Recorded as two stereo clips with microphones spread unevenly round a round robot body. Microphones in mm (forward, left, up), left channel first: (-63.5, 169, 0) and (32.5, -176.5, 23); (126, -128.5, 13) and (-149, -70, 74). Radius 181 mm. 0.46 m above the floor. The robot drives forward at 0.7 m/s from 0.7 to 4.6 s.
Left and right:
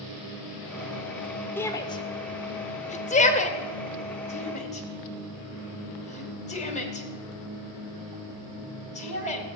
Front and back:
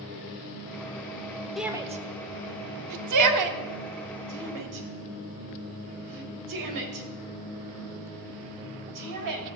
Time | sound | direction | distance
1.6 | a shout | 40° left | 0.7 m